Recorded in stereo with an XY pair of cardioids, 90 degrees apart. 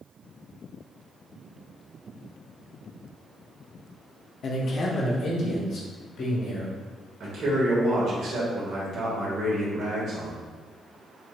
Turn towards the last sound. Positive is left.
turn(degrees=-70)